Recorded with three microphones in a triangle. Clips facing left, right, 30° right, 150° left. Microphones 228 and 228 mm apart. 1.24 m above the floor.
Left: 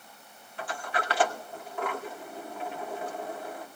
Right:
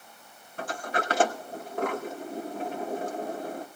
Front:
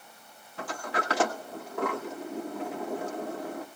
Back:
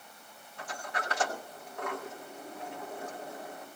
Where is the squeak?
I don't hear a squeak.